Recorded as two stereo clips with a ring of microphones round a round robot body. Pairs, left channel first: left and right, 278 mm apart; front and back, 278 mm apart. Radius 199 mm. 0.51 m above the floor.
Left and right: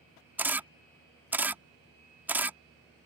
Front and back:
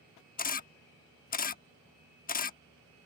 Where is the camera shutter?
10° right.